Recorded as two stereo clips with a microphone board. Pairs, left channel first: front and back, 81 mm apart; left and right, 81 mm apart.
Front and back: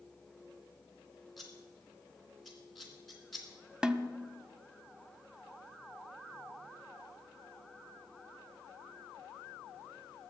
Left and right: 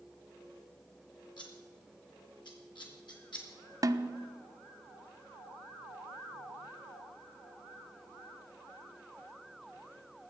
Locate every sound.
1.4 s scissors: 90° left, 3 m
3.8 s a snare drum: 105° right, 0.6 m